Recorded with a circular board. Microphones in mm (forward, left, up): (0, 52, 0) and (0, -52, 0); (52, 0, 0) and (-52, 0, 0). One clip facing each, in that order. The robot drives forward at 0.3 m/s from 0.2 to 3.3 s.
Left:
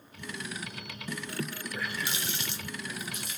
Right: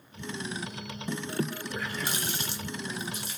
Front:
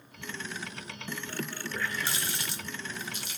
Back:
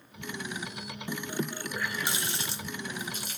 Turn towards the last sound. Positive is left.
turn(degrees=-145)